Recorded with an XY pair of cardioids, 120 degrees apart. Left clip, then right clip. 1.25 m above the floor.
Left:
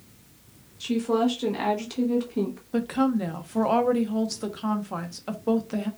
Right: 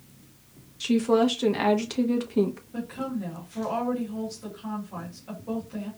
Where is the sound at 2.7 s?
70° left, 0.8 m.